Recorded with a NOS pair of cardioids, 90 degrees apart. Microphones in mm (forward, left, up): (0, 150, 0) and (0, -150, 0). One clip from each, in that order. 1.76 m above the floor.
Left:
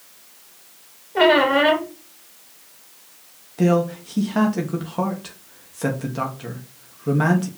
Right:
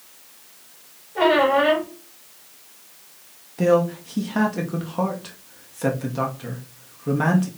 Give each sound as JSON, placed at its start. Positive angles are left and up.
{"t": 1.1, "sound": "a squeak", "azimuth_deg": 60, "distance_m": 3.0}
{"t": 3.6, "sound": "a man speaking", "azimuth_deg": 10, "distance_m": 1.8}